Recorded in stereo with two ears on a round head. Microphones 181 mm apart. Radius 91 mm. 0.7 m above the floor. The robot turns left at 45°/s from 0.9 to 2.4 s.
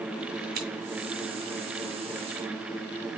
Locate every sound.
0.6 s scissors: 50° right (ahead or behind), 3.5 m